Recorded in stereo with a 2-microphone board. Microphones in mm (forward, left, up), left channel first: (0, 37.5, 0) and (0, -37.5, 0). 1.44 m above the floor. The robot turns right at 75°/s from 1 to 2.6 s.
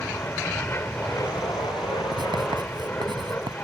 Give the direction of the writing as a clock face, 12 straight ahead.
4 o'clock.